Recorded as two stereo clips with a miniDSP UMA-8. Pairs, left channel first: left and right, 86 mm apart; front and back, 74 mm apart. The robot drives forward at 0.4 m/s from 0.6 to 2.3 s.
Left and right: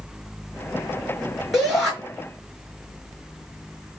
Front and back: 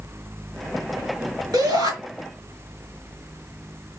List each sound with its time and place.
1.5 s a shout: straight behind, 5 m